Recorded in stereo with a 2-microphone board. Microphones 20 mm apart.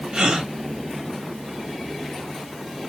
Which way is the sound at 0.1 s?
50° right (ahead or behind).